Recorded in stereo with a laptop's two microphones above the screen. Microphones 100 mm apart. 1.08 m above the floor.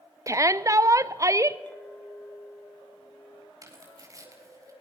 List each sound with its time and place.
0.3 s a shout: 30° right (ahead or behind), 0.7 m
1.7 s a clink: 15° left (ahead or behind), 2.5 m
3.6 s tearing paper: 35° right (ahead or behind), 4 m